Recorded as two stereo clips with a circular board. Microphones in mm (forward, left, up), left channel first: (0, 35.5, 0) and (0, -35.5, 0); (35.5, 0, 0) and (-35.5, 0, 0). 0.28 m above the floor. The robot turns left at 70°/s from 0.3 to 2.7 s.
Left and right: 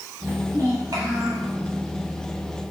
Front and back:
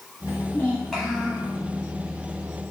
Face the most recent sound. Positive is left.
turn(degrees=150)